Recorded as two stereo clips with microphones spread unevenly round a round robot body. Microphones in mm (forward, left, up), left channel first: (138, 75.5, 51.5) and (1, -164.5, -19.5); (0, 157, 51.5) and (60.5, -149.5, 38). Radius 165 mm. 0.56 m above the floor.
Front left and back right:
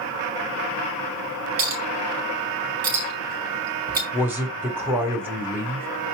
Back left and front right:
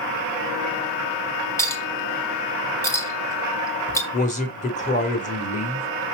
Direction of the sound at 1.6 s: 175° right.